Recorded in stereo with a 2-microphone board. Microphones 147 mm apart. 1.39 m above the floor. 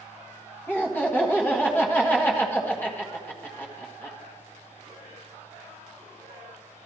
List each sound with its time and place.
0.7 s laughter: 15° left (ahead or behind), 1.6 m